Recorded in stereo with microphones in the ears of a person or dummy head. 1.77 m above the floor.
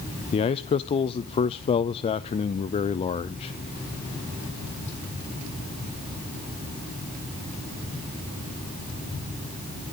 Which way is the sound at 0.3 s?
30° left (ahead or behind).